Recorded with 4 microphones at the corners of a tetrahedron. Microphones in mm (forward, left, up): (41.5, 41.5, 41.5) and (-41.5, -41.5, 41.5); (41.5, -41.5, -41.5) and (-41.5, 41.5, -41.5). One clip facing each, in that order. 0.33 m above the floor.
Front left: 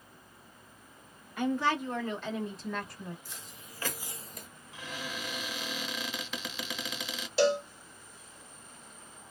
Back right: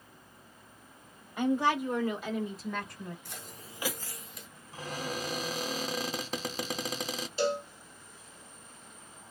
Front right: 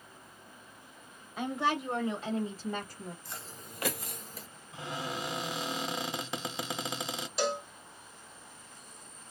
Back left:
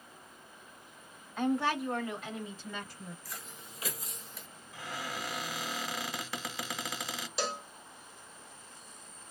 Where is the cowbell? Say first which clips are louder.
Front left 4 dB, front right 5 dB; 45° left, 0.7 m.